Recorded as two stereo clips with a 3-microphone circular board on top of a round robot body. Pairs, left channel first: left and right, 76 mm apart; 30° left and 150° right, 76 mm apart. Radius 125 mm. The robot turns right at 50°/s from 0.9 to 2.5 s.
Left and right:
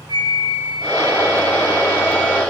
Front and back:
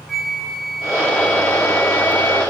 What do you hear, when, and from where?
0.1 s a flute: 60° right, 1.1 m; by 2.4 s 15° left, 1.1 m